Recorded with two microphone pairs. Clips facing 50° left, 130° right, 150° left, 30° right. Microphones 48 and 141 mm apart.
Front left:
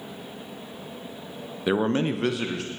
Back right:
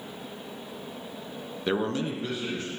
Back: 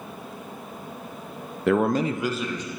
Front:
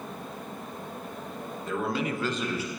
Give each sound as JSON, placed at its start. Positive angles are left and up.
{"t": 1.7, "sound": "a man speaking", "azimuth_deg": 130, "distance_m": 0.7}